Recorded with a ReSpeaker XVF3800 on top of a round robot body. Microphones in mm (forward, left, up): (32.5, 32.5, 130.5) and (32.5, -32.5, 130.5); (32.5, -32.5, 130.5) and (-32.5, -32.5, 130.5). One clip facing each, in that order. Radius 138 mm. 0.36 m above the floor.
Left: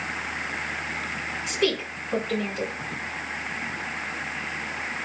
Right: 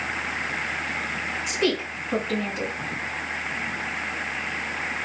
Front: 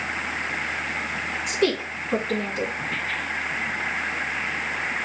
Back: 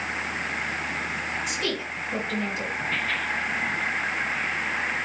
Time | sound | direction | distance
1.5 | a woman speaking | 15° right | 4.5 m